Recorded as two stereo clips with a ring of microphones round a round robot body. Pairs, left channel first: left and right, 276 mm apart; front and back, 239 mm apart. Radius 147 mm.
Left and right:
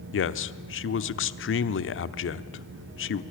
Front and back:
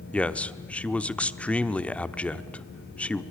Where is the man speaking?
85° left, 1.0 m.